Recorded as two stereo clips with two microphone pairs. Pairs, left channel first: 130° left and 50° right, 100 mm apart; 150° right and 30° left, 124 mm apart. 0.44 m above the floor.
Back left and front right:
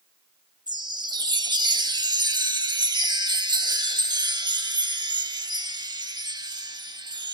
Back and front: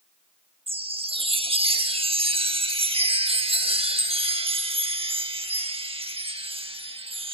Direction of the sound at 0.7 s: 10° right.